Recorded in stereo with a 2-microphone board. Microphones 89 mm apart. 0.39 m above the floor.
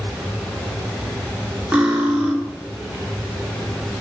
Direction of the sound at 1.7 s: 15° right (ahead or behind).